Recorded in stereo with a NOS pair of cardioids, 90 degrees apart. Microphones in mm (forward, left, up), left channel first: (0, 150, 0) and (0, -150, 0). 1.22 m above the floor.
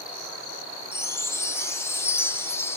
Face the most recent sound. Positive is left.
turn(degrees=10)